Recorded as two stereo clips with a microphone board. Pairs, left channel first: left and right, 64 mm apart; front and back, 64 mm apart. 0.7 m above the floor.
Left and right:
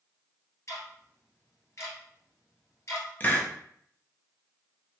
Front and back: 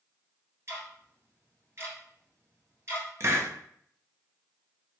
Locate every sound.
0.7 s ticking: 135° left, 2.0 m
3.2 s a hiss: 150° left, 0.6 m